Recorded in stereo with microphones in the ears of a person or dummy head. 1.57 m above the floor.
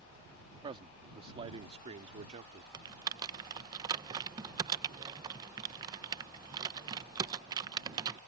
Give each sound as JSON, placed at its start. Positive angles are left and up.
{"t": 0.6, "sound": "a man speaking", "side_deg": -30}
{"t": 2.7, "sound": "typing on a keyboard", "side_deg": -25}